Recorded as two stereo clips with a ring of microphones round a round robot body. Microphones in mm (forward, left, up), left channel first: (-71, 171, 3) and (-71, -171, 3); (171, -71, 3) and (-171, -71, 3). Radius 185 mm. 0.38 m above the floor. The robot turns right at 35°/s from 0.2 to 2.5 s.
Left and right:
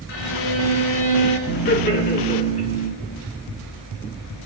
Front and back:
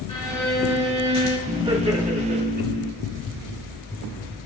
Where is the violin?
80° left, 3 m; by 1.4 s 120° left, 3 m.